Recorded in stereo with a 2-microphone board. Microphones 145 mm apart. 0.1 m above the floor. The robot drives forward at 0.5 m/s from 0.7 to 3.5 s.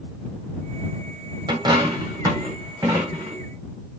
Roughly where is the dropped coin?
Right.